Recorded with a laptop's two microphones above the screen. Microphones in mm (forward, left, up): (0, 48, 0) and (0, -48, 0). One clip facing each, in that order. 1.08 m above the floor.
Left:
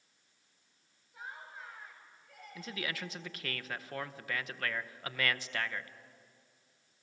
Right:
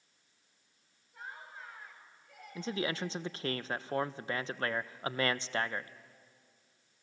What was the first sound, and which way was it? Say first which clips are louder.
Laughter: even; centre (ahead or behind).